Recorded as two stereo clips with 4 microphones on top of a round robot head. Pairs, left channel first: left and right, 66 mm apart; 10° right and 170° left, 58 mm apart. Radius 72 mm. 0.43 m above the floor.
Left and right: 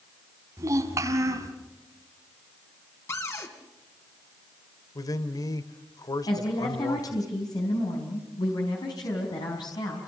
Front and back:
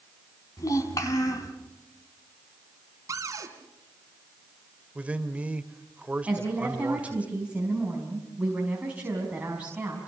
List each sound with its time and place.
0.6 s a child speaking: 45° right, 4 m
3.1 s a cupboard door: 135° left, 3.5 m
5.0 s a man speaking: 105° left, 1.7 m
6.3 s a woman speaking: 100° left, 5 m